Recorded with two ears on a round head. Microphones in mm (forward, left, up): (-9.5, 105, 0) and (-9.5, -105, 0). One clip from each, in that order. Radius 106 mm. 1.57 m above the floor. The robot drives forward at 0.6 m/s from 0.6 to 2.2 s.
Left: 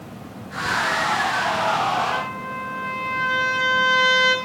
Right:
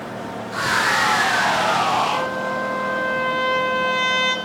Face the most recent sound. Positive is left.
turn(degrees=15)  # may be behind; listen again after turning